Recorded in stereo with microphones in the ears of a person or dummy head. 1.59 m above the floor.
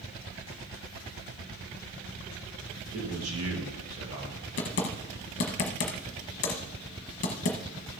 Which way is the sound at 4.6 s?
40° left (ahead or behind).